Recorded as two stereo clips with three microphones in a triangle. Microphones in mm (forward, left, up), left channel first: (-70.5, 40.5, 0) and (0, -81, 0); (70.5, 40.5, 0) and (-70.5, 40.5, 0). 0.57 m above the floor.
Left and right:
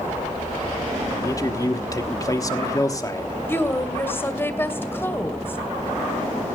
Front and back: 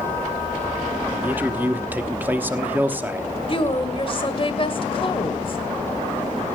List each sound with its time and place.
1.2 s a man speaking: 120° left, 1.1 m
3.5 s a woman speaking: 50° left, 2 m